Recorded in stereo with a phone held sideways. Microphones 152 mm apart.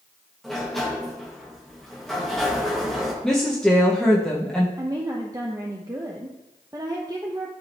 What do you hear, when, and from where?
0.4 s a sliding door: centre (ahead or behind), 1.6 m
3.2 s a woman speaking: 5° left (ahead or behind), 1.2 m
4.8 s a woman speaking: 25° right (ahead or behind), 0.7 m